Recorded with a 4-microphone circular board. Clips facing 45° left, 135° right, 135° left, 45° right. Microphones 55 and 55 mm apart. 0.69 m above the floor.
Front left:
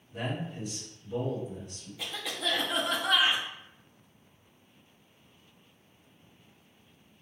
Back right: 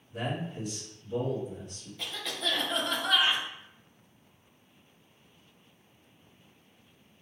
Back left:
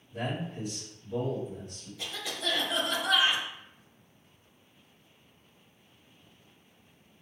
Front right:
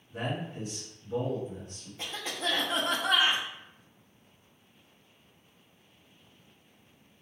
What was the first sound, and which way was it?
A man speaking, 50° right.